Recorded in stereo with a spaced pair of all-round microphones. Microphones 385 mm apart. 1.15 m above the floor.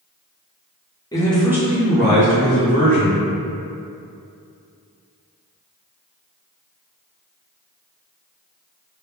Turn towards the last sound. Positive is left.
turn(degrees=-55)  # may be behind; listen again after turning